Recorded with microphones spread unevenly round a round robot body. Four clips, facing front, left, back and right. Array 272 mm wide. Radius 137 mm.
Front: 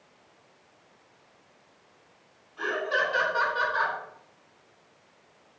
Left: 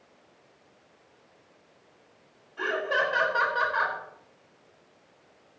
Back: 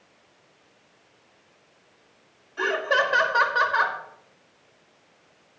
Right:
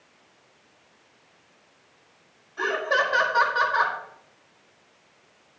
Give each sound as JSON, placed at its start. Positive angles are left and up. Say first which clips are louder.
{"t": 2.6, "sound": "laughter", "louder": "right 3 dB, back 5 dB", "azimuth_deg": -160, "distance_m": 4.5}